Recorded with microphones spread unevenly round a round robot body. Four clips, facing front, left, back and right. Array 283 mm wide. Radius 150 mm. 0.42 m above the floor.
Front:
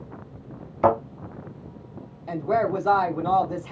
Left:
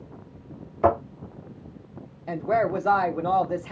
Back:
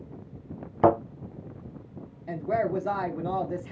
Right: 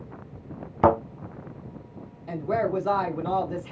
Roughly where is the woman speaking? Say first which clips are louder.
Left 2 dB, front 4 dB; left.